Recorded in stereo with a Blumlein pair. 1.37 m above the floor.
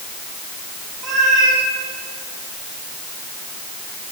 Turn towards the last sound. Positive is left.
turn(degrees=-20)